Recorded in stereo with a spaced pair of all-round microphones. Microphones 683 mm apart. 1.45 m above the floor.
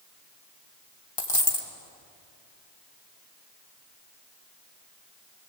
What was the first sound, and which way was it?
A dropped coin, 50° left (ahead or behind).